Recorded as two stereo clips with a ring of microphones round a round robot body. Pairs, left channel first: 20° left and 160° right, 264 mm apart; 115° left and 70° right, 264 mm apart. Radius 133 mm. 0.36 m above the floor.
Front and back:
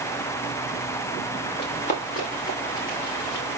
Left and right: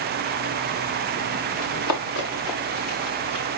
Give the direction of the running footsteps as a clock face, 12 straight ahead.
9 o'clock.